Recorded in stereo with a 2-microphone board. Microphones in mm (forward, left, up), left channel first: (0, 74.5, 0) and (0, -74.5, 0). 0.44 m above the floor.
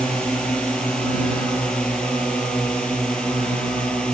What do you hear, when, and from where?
0.0 s a drone: 5° left (ahead or behind)